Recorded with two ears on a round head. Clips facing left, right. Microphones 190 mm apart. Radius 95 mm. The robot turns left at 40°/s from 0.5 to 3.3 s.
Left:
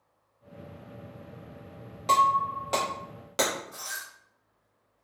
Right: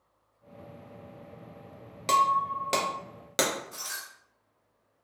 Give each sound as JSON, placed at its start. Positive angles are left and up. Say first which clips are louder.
{"t": 2.1, "sound": "breaking glass", "louder": "left 1 dB", "side_deg": -30, "distance_m": 0.7}